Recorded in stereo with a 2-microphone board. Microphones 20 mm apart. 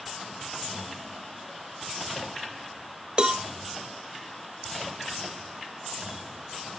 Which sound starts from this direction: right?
A cowbell, at 3.2 s.